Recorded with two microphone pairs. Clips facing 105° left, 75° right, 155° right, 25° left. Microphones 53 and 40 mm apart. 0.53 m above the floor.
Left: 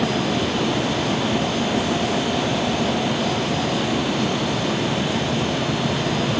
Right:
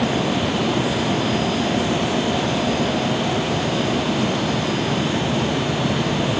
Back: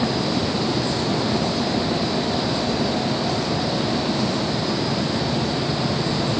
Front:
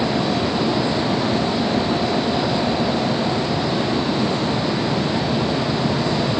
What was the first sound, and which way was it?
Only background noise.